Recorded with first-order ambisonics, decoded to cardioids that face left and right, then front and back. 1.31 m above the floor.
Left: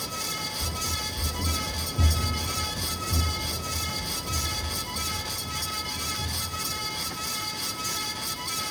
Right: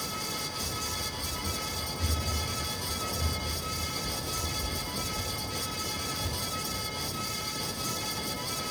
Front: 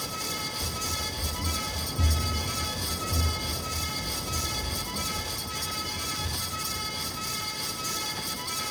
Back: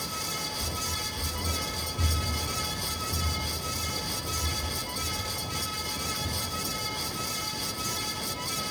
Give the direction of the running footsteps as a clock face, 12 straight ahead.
9 o'clock.